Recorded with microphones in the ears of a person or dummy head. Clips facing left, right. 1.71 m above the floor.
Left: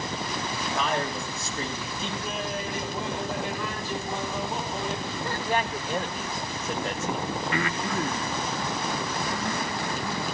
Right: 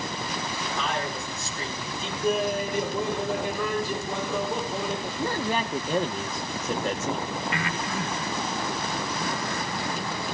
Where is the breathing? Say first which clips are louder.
Left 2 dB; 50° left (ahead or behind), 3.5 m.